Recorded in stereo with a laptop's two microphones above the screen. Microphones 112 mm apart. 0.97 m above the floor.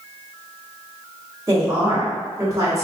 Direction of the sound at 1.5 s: 25° right (ahead or behind).